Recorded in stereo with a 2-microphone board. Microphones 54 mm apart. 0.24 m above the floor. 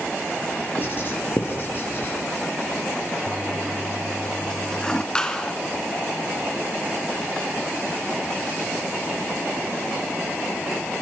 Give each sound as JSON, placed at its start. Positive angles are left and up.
{"t": 0.8, "sound": "writing", "side_deg": 45, "distance_m": 5.5}
{"t": 3.3, "sound": "a toilet flushing", "side_deg": 15, "distance_m": 0.7}
{"t": 5.2, "sound": "a clap", "side_deg": 15, "distance_m": 2.5}